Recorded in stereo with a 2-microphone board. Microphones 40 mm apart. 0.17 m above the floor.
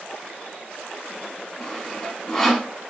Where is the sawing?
10° left (ahead or behind), 1.0 m.